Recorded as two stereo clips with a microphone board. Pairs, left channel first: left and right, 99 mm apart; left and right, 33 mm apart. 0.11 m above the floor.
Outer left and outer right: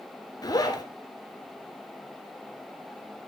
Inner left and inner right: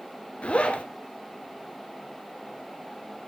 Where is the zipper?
40° left (ahead or behind), 1.1 m.